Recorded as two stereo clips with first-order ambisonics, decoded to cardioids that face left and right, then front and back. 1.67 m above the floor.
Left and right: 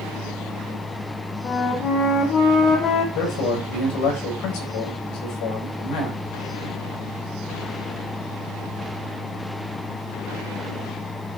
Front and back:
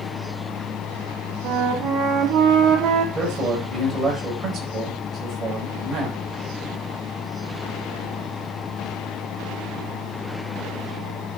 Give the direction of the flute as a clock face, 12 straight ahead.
8 o'clock.